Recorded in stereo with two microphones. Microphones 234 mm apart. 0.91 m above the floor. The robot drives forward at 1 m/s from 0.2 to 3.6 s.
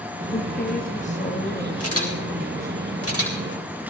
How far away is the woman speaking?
About 1.0 m.